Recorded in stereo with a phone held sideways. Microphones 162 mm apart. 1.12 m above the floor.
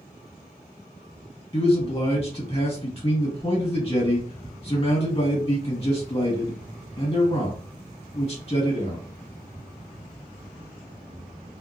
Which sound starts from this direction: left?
A man speaking, at 1.5 s.